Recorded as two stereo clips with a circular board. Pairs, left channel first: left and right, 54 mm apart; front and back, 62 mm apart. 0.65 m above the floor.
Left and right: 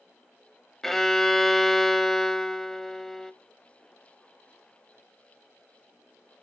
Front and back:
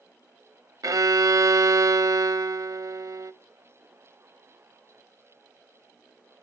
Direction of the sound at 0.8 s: 175° left.